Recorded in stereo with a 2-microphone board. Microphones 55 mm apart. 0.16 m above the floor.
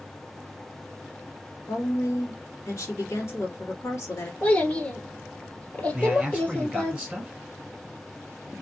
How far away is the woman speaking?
About 2.5 m.